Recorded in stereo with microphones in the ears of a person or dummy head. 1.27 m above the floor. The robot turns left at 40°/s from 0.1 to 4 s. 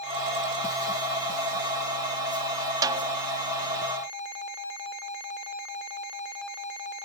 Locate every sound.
2.8 s a snare drum: 20° right (ahead or behind), 0.8 m; by 3.2 s 30° right (ahead or behind), 0.8 m